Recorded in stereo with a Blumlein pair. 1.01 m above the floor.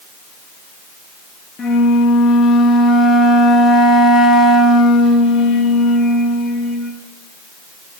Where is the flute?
20° left, 0.7 m.